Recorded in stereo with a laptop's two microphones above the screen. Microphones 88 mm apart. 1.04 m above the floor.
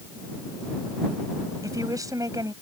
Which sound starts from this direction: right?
A woman speaking, at 1.6 s.